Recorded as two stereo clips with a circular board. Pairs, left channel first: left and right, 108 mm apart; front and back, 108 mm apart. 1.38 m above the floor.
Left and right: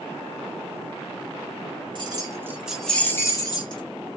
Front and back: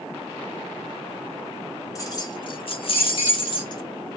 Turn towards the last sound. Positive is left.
turn(degrees=45)